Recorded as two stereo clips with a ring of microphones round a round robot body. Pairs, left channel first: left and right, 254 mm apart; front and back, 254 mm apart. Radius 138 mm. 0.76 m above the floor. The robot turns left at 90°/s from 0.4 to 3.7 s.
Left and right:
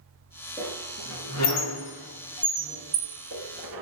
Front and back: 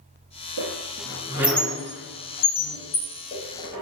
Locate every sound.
0.6 s a squeak: 175° left, 1.2 m; by 3.8 s 105° right, 1.2 m